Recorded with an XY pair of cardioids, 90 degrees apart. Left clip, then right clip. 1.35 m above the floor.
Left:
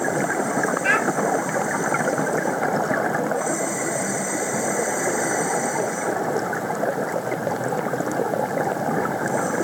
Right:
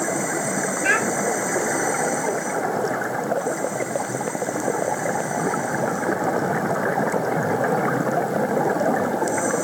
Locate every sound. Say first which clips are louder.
0.8 s a child speaking: right 1 dB; 5° left, 1.8 m